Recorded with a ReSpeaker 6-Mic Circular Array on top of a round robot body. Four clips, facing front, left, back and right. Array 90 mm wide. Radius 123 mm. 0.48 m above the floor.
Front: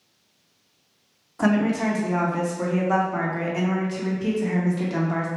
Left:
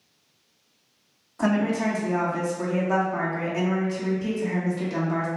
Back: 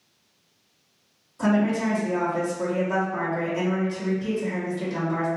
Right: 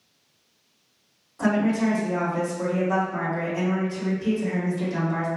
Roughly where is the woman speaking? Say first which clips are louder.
Right 1 dB, front 1 dB; ahead.